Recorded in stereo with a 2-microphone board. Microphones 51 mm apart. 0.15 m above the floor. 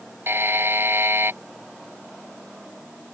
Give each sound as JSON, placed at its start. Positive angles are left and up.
{"t": 0.3, "sound": "a buzzer", "side_deg": -50}